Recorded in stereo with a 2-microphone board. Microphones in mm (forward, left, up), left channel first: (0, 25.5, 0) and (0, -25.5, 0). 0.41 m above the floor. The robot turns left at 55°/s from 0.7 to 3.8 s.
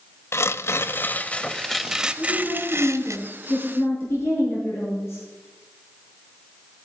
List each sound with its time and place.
0.3 s tearing paper: 60° left, 0.5 m; by 3.2 s 75° right, 0.5 m
2.2 s a woman speaking: 155° left, 6 m; by 5.2 s 65° left, 6 m